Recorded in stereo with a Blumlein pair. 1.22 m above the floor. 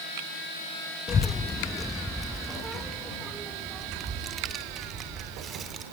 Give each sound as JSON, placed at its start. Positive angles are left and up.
{"t": 1.1, "sound": "a child speaking", "azimuth_deg": 20, "distance_m": 0.9}